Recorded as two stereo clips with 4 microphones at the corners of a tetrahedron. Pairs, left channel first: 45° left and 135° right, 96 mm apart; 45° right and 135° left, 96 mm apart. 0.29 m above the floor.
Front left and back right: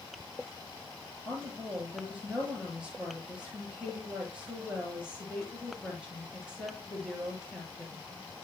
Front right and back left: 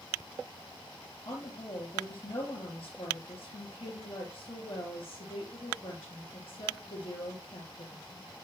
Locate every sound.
1.2 s a woman speaking: 55° right, 5 m